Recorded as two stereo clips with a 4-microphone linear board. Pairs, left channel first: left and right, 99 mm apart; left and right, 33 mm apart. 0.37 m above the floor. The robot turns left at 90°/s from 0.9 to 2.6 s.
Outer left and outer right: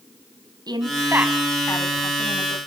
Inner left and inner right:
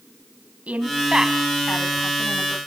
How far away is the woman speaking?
About 2.5 m.